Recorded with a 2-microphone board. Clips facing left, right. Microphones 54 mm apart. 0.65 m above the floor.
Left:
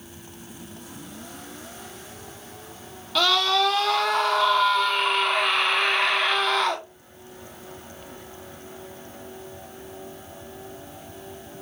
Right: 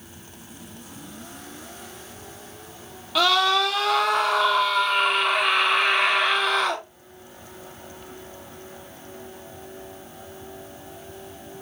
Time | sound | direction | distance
3.1 | a scream | 10° right (ahead or behind) | 1.4 m